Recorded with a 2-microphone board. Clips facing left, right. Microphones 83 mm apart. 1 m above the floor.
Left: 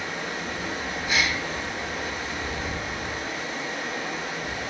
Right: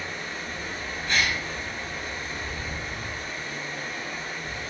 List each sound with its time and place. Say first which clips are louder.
0.0 s running water: left 3 dB; 70° left (ahead or behind), 0.9 m
1.1 s a gasp: even; 15° left (ahead or behind), 2.5 m